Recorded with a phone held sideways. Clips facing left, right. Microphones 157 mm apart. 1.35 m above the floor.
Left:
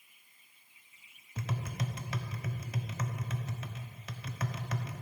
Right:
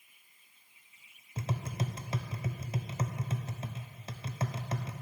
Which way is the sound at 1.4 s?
30° right (ahead or behind).